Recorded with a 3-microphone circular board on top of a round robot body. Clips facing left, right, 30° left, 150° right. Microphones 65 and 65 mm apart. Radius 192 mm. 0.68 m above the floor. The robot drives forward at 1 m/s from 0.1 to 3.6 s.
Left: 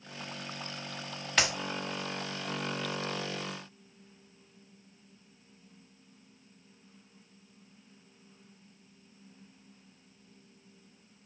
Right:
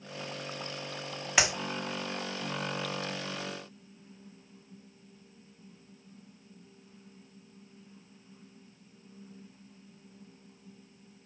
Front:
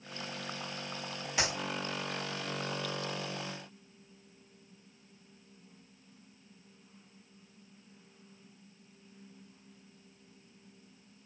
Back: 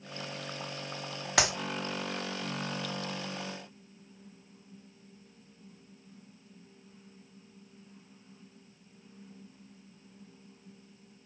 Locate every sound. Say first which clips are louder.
1.4 s a clap: right 1 dB, back 5 dB; 170° right, 1.5 m